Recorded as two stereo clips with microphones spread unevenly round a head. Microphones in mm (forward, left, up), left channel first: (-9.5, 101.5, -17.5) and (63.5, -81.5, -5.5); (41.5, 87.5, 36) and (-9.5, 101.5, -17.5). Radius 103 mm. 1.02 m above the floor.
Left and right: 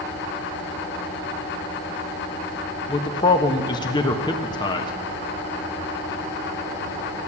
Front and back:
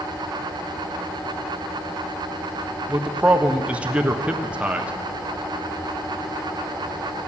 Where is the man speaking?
Straight behind, 1.2 m.